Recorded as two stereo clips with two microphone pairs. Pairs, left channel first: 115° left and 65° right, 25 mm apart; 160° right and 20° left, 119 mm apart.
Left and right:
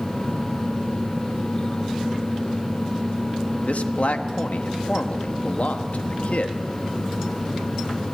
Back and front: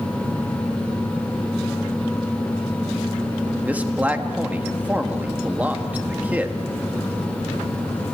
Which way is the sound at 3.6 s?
95° left.